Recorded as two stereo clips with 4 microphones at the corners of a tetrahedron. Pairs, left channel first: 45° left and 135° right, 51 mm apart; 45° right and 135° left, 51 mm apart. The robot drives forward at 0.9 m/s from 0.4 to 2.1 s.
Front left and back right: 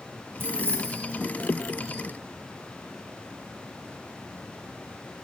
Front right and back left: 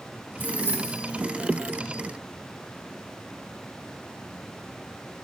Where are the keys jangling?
175° right, 0.7 m; by 1.2 s straight behind, 1.4 m.